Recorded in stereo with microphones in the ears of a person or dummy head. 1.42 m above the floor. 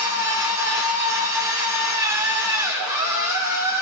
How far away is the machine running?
About 5 m.